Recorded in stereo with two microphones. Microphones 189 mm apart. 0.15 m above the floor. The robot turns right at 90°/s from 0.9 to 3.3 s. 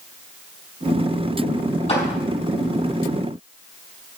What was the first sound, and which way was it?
A clap, 30° left (ahead or behind).